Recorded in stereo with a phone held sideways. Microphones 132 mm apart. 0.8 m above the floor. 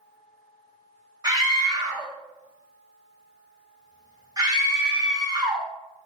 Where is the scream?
30° right (ahead or behind), 1.0 m.